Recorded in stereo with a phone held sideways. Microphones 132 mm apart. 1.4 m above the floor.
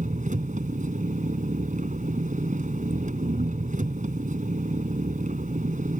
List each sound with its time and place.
0.0 s an engine running: 75° right (ahead or behind)